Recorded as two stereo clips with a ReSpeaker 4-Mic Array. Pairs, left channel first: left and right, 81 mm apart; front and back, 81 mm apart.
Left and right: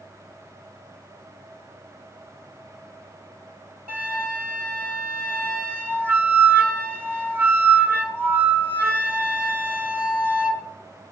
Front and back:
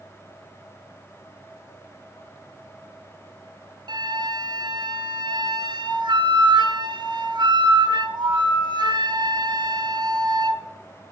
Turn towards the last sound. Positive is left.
turn(degrees=-155)